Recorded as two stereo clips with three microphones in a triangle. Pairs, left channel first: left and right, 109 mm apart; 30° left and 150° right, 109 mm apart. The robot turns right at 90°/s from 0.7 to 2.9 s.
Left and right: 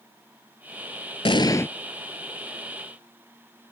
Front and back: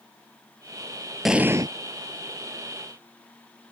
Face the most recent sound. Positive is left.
turn(degrees=-90)